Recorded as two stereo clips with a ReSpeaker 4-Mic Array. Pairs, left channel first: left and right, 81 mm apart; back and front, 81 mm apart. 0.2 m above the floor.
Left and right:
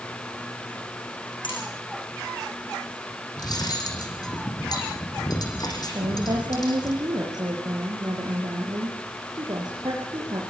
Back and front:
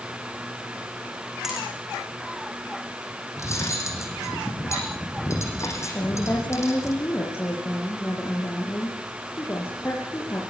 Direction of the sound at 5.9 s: 120° right.